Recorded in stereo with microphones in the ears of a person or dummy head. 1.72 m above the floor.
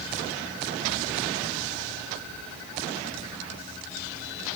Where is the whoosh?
I don't hear a whoosh.